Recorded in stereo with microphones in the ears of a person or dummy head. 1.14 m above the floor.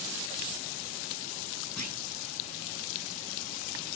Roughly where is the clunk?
Centre.